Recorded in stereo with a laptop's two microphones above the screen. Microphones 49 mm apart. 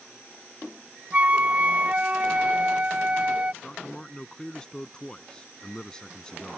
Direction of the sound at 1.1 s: 30° right (ahead or behind).